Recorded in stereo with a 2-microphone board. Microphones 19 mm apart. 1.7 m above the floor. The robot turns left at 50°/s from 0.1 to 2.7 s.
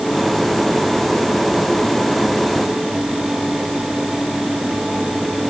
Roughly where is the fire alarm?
I don't hear a fire alarm.